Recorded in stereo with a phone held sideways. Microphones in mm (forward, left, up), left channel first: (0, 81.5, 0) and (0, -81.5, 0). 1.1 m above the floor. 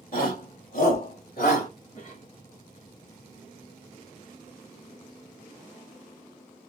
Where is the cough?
50° left (ahead or behind), 1.8 m.